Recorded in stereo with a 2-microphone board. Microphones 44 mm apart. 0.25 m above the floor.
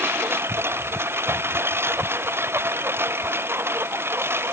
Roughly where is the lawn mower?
Right.